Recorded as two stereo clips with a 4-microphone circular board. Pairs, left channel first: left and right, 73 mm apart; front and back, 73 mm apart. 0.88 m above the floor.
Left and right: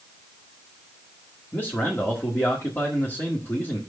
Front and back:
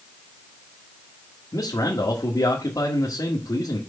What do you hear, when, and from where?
1.5 s a man speaking: 30° left, 1.8 m